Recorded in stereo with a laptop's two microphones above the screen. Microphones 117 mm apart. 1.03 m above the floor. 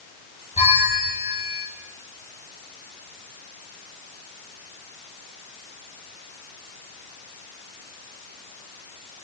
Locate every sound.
0.6 s a bell: 80° left, 4 m